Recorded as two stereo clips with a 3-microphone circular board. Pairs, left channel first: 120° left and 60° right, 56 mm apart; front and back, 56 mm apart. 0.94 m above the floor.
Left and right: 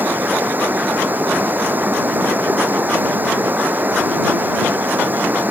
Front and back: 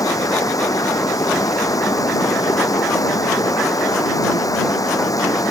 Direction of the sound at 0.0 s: Straight ahead.